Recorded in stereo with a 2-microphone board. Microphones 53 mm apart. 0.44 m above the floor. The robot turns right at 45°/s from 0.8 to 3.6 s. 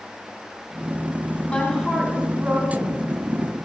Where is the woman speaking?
155° left, 2.5 m; by 3.0 s 135° right, 2.5 m.